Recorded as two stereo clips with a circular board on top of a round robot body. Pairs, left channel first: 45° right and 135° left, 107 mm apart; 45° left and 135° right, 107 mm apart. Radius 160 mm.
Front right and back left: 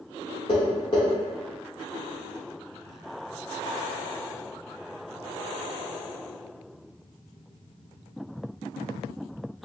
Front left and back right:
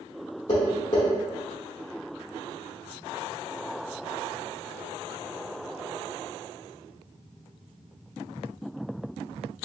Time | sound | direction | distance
0.5 | tapping | straight ahead | 0.6 m